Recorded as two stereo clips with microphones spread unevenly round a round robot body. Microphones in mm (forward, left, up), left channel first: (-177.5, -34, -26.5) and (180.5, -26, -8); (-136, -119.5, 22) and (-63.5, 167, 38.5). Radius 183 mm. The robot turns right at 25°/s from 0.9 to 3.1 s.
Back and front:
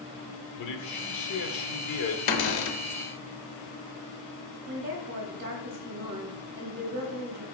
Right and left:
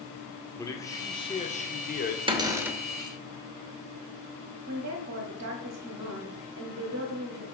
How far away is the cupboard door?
About 0.9 m.